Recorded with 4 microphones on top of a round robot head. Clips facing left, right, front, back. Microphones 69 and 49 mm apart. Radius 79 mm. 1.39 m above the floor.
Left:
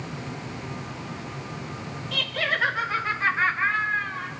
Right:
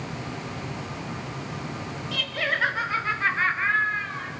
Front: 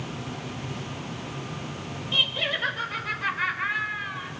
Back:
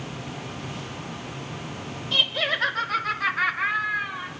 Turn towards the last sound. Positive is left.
turn(degrees=165)